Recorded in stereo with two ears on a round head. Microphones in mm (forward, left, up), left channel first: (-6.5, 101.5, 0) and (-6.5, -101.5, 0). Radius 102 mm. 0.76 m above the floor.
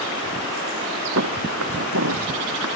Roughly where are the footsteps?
Right.